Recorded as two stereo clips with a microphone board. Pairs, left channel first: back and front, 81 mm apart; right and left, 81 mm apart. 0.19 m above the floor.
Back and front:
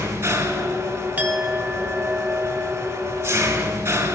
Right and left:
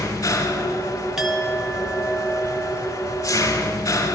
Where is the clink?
15° left, 0.6 m.